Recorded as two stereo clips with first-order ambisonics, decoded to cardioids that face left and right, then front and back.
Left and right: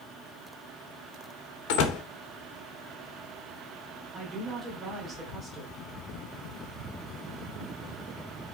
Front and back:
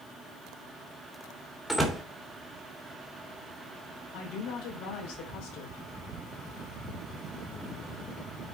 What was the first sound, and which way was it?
A door slam, 90° left.